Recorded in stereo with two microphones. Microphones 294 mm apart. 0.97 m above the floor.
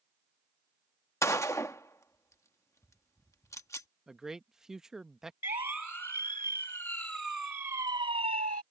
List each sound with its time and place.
1.2 s a gunshot: 10° left (ahead or behind)
4.1 s a man speaking: centre (ahead or behind)
5.4 s a siren: 80° left; by 8.6 s 70° left (ahead or behind)